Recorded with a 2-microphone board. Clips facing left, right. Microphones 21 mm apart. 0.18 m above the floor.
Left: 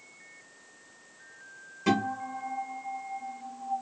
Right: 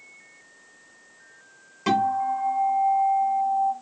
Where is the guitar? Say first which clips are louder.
Right 6 dB; 35° right (ahead or behind), 1.4 m.